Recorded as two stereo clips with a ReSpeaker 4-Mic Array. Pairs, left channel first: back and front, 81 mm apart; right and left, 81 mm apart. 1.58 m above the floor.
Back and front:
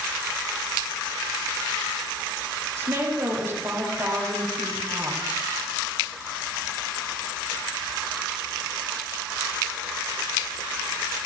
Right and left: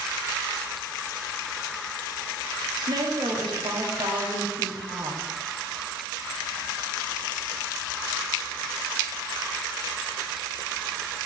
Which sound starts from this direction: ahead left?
A woman speaking, at 2.8 s.